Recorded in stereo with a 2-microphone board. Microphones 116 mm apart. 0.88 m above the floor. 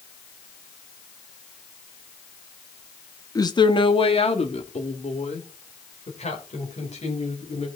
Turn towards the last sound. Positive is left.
turn(degrees=85)